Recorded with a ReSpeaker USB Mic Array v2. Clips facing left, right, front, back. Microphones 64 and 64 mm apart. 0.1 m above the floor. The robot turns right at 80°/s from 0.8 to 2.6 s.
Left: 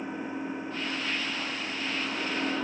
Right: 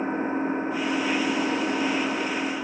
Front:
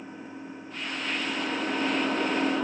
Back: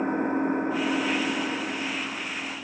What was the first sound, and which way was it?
An engine running, 145° right.